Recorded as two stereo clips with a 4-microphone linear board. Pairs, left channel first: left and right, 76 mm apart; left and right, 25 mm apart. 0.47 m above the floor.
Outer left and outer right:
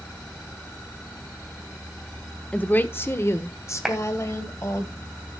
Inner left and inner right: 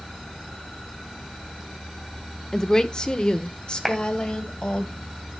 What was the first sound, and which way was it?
A woman speaking, 15° left (ahead or behind).